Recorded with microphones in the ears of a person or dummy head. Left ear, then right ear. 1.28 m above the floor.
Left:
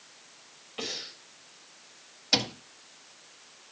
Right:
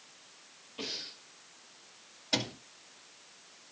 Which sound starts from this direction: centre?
A cupboard door, at 2.3 s.